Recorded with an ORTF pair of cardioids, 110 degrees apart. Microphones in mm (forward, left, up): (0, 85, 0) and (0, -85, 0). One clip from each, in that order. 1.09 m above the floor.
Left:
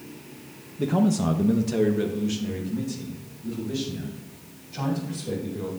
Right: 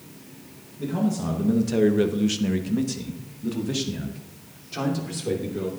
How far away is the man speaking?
About 0.8 m.